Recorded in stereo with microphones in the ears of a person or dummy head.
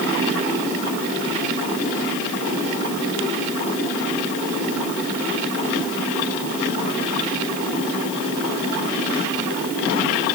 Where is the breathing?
No breathing in this recording.